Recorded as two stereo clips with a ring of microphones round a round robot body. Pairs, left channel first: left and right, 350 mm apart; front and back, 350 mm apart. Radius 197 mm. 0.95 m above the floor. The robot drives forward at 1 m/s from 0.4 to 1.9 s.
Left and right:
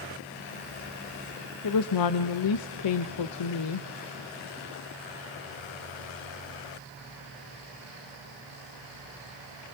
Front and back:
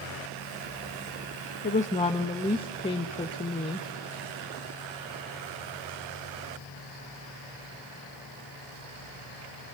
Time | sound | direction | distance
1.6 | a woman speaking | 55° left | 0.9 m